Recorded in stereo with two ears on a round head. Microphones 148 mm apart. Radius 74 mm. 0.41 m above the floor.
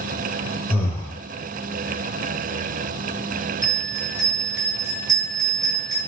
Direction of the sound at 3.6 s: 20° right (ahead or behind).